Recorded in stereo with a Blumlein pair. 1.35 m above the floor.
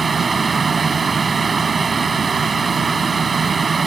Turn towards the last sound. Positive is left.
turn(degrees=-15)